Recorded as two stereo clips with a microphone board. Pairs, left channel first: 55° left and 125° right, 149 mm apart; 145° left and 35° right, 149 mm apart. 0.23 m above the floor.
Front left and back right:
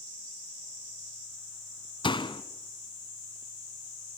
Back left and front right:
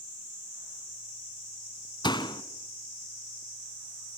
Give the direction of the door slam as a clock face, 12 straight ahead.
9 o'clock.